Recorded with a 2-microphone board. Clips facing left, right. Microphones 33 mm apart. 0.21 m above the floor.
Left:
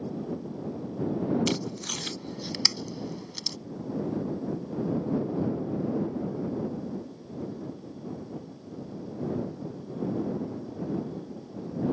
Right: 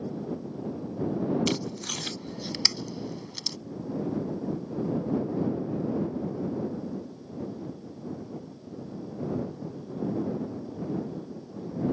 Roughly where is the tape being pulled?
Centre.